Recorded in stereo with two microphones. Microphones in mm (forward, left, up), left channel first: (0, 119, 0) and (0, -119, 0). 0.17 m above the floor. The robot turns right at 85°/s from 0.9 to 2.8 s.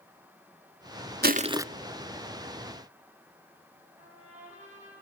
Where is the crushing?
45° right, 0.5 m; by 1.6 s 10° right, 0.5 m.